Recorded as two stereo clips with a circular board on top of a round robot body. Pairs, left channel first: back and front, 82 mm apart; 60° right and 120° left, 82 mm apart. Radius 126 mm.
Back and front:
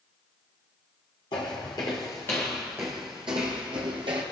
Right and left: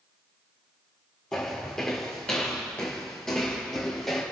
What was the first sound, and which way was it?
Footsteps, 145° right.